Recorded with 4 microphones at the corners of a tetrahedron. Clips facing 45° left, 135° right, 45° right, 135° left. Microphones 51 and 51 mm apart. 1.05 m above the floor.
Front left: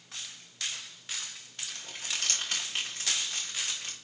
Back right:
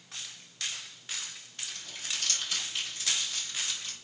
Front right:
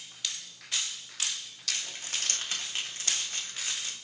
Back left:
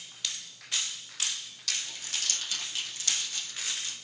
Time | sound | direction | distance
1.8 | crumpling | 10° left | 1.3 m